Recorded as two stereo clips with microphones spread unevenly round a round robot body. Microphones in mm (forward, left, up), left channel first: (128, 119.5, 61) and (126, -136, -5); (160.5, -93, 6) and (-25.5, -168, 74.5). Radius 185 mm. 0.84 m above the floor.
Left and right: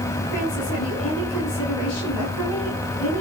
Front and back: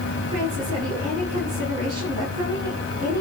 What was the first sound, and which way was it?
A woman speaking, 120° left.